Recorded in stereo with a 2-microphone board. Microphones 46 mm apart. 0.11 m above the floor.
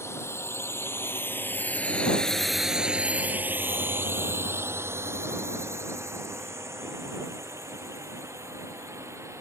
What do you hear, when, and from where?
0.0 s a drone: 70° left (ahead or behind); by 9.4 s 75° right (ahead or behind)